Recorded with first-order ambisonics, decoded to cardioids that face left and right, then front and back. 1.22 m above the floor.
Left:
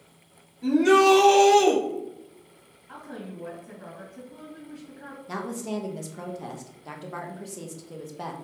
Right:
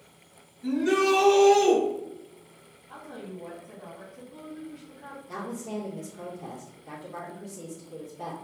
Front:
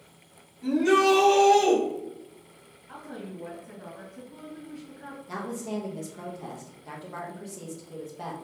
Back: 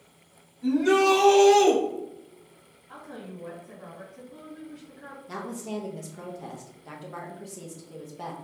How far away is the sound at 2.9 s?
About 1.7 m.